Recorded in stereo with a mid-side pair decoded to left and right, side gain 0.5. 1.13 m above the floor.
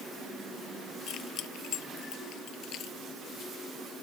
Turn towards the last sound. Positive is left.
turn(degrees=60)